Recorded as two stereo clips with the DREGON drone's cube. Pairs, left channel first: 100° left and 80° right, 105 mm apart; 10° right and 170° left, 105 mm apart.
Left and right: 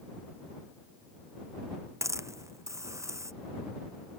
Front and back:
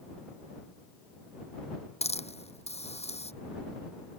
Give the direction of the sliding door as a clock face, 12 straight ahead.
I don't hear a sliding door.